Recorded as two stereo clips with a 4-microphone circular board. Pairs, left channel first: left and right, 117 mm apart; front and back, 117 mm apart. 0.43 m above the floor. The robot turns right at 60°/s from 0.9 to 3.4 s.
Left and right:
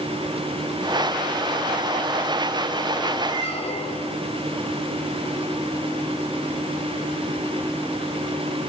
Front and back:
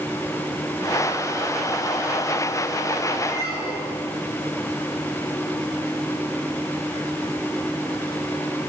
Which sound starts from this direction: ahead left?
A squeak, at 3.3 s.